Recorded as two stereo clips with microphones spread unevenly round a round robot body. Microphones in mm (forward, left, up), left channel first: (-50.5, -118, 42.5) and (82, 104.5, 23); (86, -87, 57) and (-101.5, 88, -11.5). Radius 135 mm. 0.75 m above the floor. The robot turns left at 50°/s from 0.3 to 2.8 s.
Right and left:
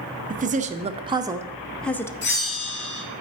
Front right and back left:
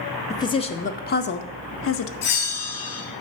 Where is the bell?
70° right, 2.5 m; by 3.0 s 100° right, 2.5 m.